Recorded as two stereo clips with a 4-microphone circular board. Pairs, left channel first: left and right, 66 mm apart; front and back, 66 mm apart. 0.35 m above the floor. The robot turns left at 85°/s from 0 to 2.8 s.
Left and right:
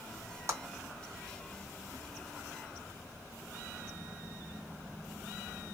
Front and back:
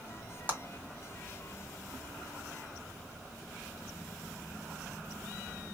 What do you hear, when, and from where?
0.5 s a clap: 125° right, 1.8 m; by 0.6 s 135° right, 1.8 m